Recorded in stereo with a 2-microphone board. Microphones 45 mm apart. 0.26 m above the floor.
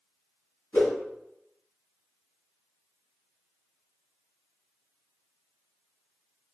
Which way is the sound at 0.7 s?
50° left (ahead or behind).